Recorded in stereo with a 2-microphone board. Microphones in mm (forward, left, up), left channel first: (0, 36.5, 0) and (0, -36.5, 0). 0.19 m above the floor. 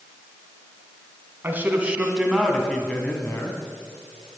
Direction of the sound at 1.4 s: 30° right (ahead or behind).